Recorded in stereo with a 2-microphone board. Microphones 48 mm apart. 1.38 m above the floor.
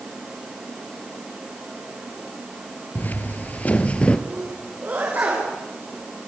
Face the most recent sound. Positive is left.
turn(degrees=-40)  # may be behind; listen again after turning